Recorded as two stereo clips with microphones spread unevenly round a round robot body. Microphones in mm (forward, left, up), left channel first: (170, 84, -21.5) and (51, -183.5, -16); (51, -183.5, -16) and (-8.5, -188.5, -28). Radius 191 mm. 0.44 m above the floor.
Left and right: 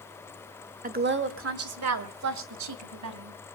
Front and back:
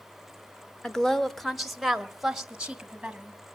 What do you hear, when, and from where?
0.8 s a woman speaking: 80° right, 1.4 m; by 3.4 s 95° right, 4 m